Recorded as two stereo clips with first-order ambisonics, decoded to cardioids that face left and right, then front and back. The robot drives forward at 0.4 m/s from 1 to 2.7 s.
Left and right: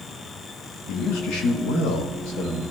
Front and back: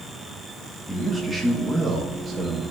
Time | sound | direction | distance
0.9 | a man speaking | 95° left | 1.5 m